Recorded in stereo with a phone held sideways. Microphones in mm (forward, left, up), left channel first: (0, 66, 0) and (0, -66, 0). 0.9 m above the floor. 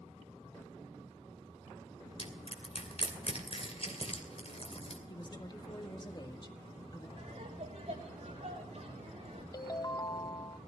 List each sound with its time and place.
2.2 s crushing: 50° left (ahead or behind), 2.5 m
5.1 s a woman speaking: 35° left (ahead or behind), 1.6 m
7.2 s laughter: 55° right (ahead or behind), 6 m
9.5 s a ringtone: 30° left (ahead or behind), 0.5 m